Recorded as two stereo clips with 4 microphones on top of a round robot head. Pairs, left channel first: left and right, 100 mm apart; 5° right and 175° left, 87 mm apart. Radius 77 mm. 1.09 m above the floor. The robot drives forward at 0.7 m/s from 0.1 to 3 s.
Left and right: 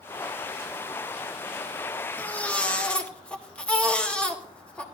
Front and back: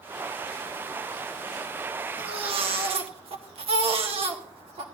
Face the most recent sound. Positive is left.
turn(degrees=170)